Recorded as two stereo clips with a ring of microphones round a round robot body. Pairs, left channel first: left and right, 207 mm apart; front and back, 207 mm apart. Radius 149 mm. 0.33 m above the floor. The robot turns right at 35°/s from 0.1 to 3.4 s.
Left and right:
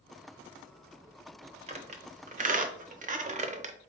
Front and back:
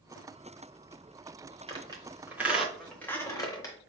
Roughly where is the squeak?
Behind right.